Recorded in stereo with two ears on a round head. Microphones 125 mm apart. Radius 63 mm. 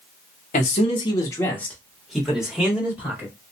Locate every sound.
0.5 s a man speaking: 55° left (ahead or behind), 1.0 m; by 3.3 s 15° right (ahead or behind), 2.5 m